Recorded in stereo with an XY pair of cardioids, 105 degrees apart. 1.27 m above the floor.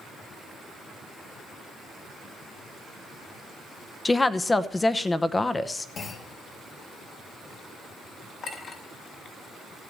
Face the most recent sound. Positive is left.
turn(degrees=60)